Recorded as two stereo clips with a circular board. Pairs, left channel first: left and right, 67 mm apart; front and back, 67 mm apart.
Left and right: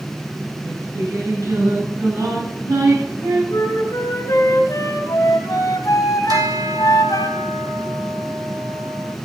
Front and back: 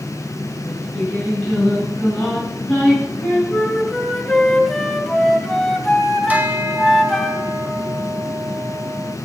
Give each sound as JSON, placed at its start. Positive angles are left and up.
{"t": 0.6, "sound": "singing", "azimuth_deg": -70, "distance_m": 8.5}
{"t": 3.5, "sound": "a flute", "azimuth_deg": 80, "distance_m": 2.0}
{"t": 6.3, "sound": "a bell", "azimuth_deg": -115, "distance_m": 1.8}